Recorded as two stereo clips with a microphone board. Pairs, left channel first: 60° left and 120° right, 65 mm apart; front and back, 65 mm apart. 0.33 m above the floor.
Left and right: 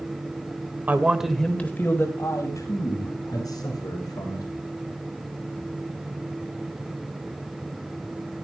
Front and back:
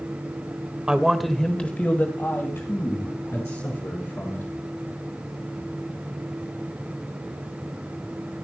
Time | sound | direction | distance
0.9 | a man speaking | 120° right | 1.4 m